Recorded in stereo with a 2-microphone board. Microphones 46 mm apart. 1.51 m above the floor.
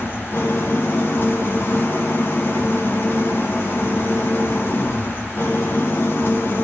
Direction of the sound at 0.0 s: 50° left (ahead or behind).